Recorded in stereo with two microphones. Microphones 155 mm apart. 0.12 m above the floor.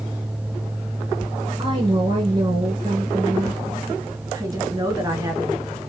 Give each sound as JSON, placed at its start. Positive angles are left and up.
{"t": 1.6, "sound": "a woman speaking", "side_deg": -30, "distance_m": 1.7}
{"t": 4.3, "sound": "a woman speaking", "side_deg": -25, "distance_m": 1.6}